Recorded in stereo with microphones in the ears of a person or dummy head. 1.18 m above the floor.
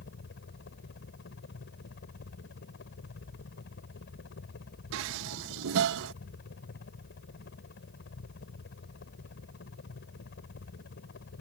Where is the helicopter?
60° left (ahead or behind).